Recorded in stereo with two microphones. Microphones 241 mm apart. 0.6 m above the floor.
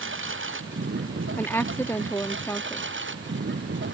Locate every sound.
0.0 s a lawn mower: 55° right (ahead or behind); by 3.9 s 50° right (ahead or behind)
1.4 s a woman speaking: 10° left (ahead or behind)